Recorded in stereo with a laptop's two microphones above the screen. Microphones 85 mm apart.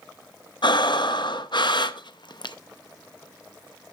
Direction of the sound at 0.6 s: 70° left (ahead or behind).